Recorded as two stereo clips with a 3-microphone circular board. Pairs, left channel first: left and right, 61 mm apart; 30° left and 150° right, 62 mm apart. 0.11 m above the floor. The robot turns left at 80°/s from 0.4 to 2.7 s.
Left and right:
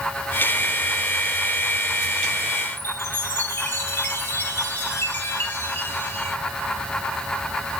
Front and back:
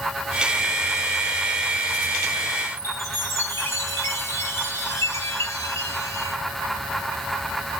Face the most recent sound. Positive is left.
turn(degrees=45)